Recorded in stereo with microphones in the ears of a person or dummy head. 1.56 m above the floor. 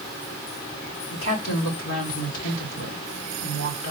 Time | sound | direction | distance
1.1 | a woman speaking | 85° left | 3 m